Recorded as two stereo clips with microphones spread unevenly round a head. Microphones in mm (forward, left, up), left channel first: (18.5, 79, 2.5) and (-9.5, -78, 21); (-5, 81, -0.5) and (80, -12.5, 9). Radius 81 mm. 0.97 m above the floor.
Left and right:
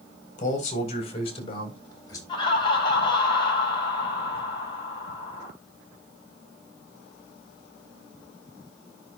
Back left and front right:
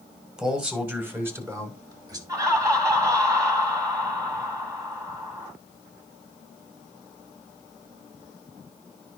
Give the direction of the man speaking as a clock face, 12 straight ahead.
11 o'clock.